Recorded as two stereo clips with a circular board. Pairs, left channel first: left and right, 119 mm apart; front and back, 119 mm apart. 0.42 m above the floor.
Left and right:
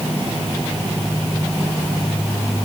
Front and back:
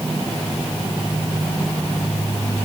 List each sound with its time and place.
Only background noise.